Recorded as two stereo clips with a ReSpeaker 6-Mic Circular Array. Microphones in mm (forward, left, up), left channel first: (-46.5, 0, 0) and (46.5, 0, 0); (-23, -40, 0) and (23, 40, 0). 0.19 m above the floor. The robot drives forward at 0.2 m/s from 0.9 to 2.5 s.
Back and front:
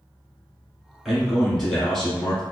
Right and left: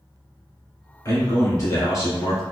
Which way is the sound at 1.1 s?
90° right.